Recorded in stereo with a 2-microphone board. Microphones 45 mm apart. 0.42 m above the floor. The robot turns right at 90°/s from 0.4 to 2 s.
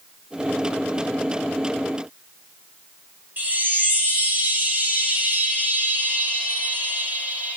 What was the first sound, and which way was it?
A chime, 35° right (ahead or behind).